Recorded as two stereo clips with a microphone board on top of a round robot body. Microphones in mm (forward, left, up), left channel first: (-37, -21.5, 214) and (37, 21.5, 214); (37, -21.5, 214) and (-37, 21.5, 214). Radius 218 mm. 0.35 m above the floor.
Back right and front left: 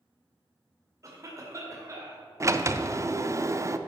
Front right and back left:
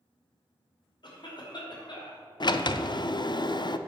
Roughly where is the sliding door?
Ahead.